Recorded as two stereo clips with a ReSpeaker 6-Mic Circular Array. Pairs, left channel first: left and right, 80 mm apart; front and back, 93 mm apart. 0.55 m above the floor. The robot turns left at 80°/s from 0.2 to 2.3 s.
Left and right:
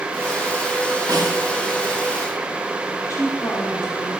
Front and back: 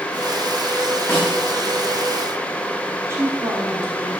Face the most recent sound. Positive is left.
turn(degrees=125)